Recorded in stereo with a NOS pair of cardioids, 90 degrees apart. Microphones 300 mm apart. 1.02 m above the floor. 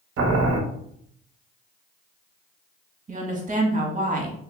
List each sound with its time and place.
0.2 s boiling: 45° right, 0.6 m
3.1 s a woman speaking: 25° right, 1.2 m